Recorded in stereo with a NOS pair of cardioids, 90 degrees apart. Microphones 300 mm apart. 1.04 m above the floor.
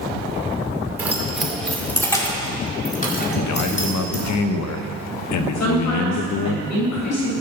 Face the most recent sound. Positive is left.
turn(degrees=65)